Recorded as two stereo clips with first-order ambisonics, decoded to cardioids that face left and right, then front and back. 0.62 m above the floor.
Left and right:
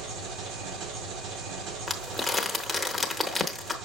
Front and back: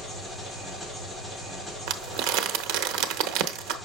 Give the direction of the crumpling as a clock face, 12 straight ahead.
6 o'clock.